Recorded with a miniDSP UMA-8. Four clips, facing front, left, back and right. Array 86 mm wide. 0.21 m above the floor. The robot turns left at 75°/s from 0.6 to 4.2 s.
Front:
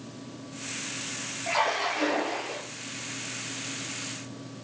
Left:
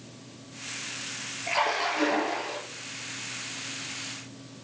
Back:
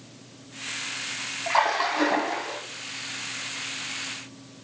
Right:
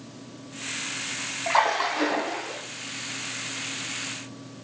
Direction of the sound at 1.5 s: 110° right.